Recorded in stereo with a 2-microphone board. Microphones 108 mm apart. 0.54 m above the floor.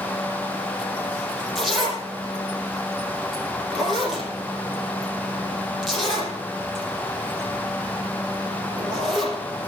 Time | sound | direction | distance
1.6 | a zipper | centre (ahead or behind) | 5.5 m